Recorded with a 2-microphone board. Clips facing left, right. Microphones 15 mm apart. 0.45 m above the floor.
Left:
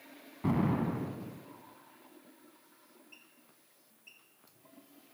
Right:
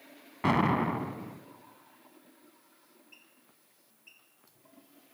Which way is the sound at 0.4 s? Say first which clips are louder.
Right 5 dB; 55° right (ahead or behind).